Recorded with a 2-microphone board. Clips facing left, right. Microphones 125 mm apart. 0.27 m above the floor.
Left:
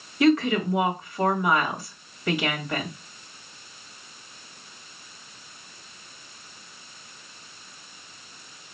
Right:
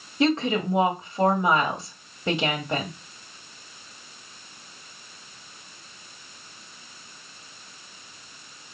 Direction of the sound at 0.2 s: 30° right (ahead or behind).